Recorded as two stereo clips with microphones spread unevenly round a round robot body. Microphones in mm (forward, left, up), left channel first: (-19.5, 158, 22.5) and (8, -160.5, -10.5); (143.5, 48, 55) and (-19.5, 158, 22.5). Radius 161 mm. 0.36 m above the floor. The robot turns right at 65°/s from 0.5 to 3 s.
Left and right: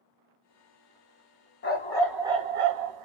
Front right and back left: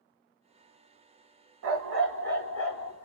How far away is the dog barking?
About 0.8 m.